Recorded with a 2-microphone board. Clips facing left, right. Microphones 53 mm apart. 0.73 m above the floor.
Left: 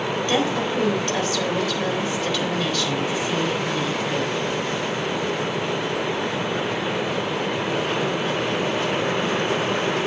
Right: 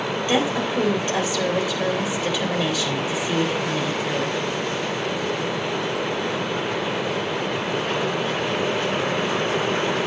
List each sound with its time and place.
0.3 s a woman speaking: 15° right (ahead or behind), 3.5 m